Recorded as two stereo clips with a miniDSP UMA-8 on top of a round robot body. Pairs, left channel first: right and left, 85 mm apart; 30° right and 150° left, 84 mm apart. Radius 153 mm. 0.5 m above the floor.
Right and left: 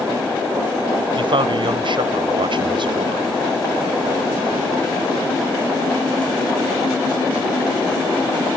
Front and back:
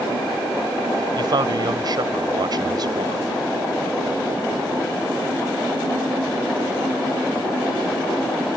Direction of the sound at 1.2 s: 110° left.